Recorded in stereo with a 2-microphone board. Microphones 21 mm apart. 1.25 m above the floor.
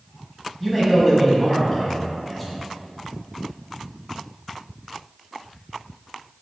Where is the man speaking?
5° right (ahead or behind), 1.4 m.